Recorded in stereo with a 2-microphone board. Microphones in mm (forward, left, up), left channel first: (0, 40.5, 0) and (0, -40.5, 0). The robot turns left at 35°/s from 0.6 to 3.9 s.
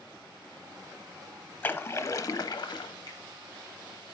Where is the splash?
155° left, 0.7 m; by 2.9 s 110° left, 0.7 m.